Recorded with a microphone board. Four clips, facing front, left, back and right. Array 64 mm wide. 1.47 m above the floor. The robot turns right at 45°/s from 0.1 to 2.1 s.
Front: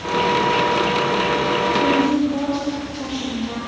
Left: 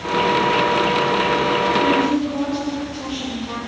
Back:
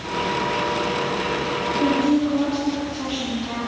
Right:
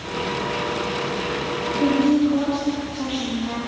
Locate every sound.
1.8 s a woman speaking: 125° right, 3.5 m; by 3.7 s 110° right, 3.5 m